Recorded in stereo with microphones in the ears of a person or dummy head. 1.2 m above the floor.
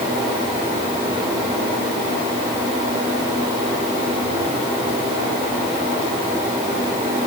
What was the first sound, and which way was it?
Only background noise.